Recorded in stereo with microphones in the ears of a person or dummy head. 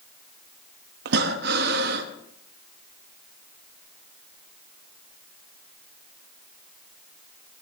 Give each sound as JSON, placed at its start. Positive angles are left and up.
{"t": 1.1, "sound": "breathing", "side_deg": -65, "distance_m": 1.6}